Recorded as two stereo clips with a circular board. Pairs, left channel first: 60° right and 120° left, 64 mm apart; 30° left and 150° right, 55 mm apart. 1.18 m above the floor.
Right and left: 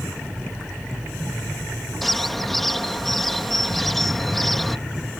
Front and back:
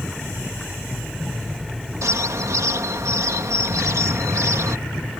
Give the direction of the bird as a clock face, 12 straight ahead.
5 o'clock.